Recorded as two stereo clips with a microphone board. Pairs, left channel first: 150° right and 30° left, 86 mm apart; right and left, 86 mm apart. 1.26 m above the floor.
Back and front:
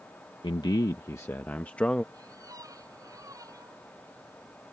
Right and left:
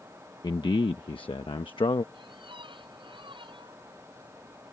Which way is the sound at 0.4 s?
125° right.